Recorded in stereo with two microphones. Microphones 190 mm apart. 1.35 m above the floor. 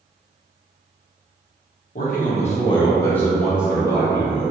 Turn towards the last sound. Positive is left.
turn(degrees=-30)  # may be behind; listen again after turning